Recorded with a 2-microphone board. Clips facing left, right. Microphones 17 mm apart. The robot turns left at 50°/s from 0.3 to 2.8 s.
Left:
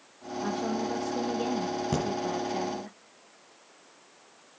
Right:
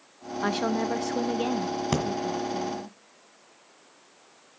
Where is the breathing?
45° right (ahead or behind), 1.7 m; by 2.0 s 40° right (ahead or behind), 1.7 m.